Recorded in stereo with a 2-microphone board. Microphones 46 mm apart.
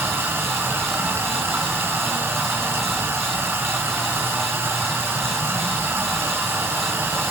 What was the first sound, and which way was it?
Running water, 75° right (ahead or behind).